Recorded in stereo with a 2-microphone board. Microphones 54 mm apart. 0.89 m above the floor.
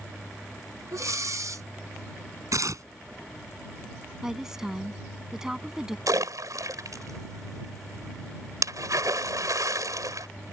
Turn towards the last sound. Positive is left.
turn(degrees=-80)